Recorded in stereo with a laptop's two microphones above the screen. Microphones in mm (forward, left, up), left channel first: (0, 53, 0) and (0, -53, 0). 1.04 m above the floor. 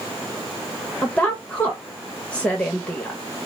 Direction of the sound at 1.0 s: 10° left (ahead or behind).